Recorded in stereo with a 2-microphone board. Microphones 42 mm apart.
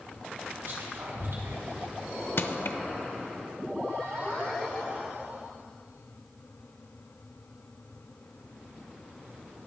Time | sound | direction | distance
0.6 | whispering | 70° right (ahead or behind) | 4.5 m
2.4 | crushing | 65° left (ahead or behind) | 0.6 m